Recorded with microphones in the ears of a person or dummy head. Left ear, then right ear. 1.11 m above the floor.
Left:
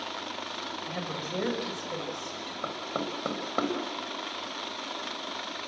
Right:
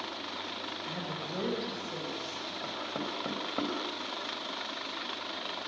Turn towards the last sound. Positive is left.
turn(degrees=45)  # may be behind; listen again after turning